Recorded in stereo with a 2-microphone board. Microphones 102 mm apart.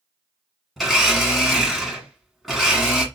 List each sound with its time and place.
0.8 s a blender: centre (ahead or behind), 1.1 m